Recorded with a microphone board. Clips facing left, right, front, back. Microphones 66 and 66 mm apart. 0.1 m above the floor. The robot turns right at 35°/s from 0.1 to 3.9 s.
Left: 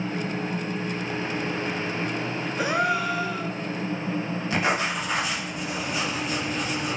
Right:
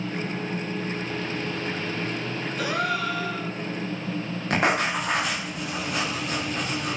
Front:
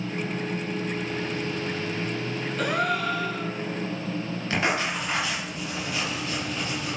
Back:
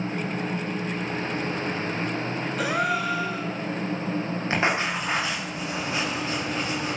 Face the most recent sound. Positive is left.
turn(degrees=-115)